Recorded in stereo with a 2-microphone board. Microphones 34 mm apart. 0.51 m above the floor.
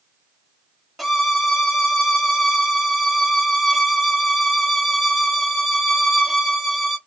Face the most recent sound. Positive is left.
turn(degrees=-5)  # may be behind; listen again after turning